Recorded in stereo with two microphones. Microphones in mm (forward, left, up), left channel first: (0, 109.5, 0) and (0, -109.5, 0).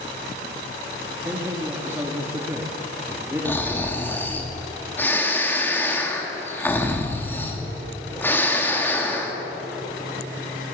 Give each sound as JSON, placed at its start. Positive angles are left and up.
{"t": 1.2, "sound": "a man speaking", "side_deg": -10, "distance_m": 2.5}
{"t": 3.5, "sound": "snoring", "side_deg": 10, "distance_m": 2.5}